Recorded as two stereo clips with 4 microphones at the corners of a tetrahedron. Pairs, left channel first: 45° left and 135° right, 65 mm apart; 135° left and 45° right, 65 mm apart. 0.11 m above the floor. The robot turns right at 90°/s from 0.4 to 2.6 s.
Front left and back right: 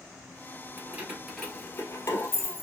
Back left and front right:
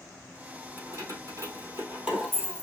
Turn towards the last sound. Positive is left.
turn(degrees=70)